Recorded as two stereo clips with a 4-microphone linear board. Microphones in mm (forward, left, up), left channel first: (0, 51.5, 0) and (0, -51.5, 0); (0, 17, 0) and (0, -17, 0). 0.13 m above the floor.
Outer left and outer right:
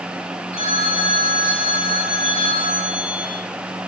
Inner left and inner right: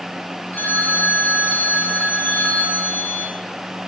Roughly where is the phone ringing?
Left.